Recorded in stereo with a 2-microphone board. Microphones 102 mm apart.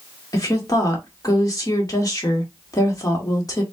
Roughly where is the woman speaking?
Left.